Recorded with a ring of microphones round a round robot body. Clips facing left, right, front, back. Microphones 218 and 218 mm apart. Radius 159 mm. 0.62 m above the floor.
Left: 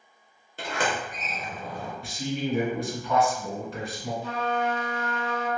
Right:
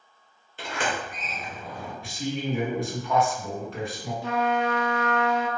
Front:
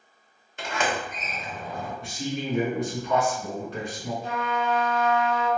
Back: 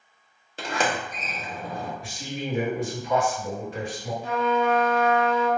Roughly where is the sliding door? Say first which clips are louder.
Left 1 dB, back 1 dB; behind left.